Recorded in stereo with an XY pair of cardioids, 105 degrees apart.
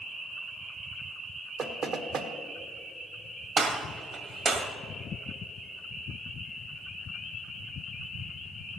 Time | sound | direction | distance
1.6 | knocking | 60° right | 1.2 m
3.6 | a gunshot | 55° right | 1.7 m